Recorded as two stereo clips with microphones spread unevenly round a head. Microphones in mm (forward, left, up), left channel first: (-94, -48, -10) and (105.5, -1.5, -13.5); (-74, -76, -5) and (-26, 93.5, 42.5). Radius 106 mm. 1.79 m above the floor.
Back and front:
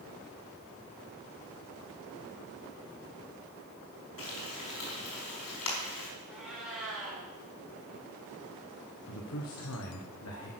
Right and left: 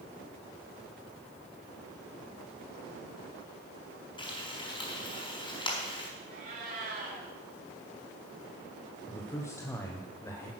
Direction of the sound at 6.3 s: 100° left.